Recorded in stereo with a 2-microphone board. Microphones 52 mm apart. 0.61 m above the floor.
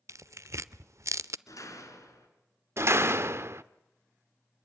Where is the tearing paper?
65° right (ahead or behind), 0.6 m.